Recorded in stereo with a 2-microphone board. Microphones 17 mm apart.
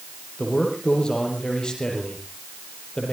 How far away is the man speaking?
About 6.5 m.